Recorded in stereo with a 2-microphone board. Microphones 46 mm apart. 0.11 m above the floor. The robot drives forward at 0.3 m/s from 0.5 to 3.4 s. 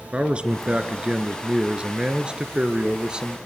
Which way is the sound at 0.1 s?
25° right (ahead or behind).